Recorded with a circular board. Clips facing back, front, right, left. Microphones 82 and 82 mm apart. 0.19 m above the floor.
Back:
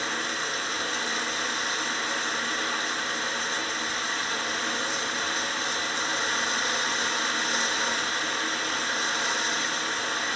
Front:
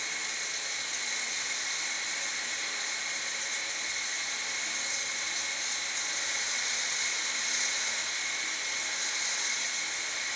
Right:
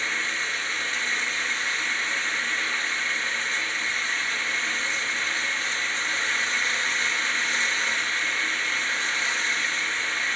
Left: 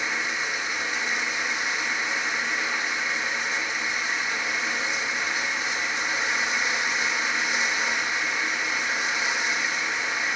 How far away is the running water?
About 1.6 m.